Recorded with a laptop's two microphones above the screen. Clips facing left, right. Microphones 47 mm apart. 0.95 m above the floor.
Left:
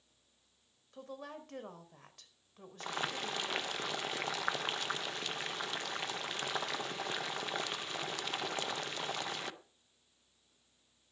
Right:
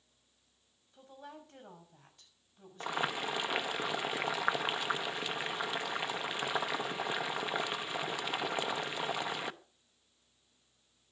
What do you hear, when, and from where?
0.9 s a woman speaking: 75° left (ahead or behind), 4.5 m
2.8 s boiling: 15° right (ahead or behind), 0.7 m